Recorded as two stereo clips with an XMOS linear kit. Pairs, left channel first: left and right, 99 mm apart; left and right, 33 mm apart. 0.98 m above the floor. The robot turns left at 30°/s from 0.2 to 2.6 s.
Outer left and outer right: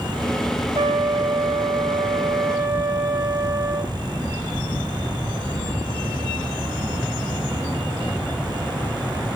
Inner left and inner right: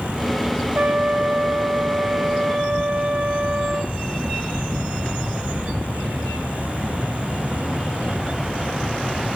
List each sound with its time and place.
0.8 s a trumpet: 85° right, 3 m; by 3.9 s 140° right, 3 m